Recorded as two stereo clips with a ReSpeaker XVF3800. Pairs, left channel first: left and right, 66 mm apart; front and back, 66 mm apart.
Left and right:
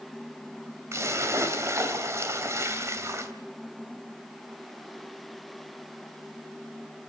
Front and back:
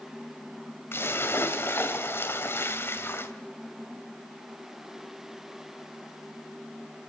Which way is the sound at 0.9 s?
50° right.